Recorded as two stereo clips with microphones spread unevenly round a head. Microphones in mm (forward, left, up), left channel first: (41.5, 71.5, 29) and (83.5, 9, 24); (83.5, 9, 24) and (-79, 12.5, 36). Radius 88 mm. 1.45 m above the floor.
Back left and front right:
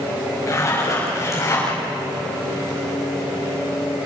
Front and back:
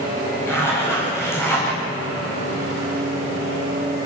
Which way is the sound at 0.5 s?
75° left.